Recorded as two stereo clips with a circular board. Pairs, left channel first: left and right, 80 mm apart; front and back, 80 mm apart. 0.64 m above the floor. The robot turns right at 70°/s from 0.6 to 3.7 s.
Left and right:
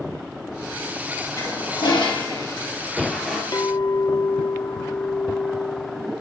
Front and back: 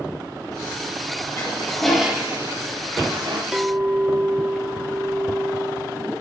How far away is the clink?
About 0.6 m.